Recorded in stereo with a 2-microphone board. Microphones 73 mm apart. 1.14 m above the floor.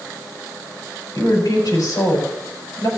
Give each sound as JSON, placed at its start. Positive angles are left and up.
{"t": 1.1, "sound": "a woman speaking", "side_deg": 70, "distance_m": 4.0}